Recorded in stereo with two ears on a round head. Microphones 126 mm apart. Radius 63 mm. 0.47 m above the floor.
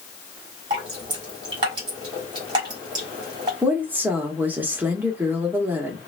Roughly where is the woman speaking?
Centre.